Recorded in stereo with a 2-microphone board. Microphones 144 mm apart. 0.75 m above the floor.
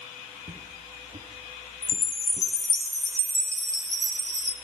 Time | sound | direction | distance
0.4 | footsteps | 65° right (ahead or behind) | 3 m
1.8 | a chime | 45° right (ahead or behind) | 1.5 m